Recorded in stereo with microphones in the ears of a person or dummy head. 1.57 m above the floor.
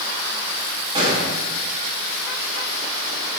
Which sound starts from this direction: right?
A gunshot, at 0.9 s.